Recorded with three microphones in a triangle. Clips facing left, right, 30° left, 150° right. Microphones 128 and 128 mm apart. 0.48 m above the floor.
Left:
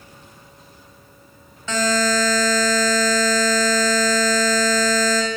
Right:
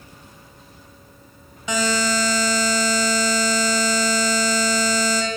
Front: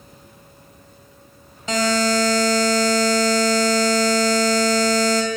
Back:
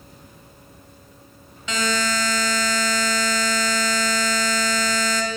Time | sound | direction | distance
1.7 | a buzzer | 15° right | 2.5 m